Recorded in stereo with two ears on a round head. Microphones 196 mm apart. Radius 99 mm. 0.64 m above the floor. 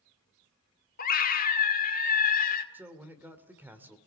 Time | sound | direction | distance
1.0 | a scream | 40° left (ahead or behind) | 2 m
2.7 | a man speaking | 10° right (ahead or behind) | 1.9 m